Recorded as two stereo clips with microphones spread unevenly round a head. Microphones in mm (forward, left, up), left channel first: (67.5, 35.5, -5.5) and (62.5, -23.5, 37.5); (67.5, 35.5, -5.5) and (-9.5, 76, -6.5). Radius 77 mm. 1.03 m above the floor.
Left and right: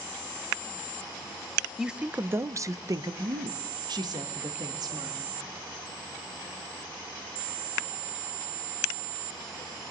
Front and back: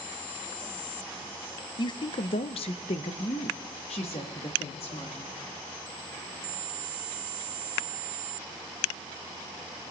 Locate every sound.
1.8 s a woman speaking: 10° left, 0.6 m; by 5.4 s 85° right, 1.8 m